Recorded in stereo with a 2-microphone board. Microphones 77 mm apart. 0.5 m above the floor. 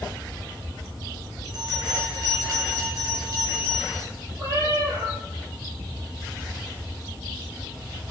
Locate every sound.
1.4 s a bell: 50° right (ahead or behind), 5.5 m
4.4 s a cat meowing: 40° right (ahead or behind), 3.5 m